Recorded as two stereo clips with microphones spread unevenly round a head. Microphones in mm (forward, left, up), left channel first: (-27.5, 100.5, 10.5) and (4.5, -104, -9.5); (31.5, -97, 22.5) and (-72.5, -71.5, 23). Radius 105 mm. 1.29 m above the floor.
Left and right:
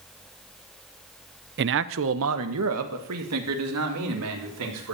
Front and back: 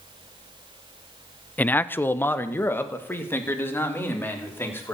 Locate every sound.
1.6 s a man speaking: 85° right, 0.6 m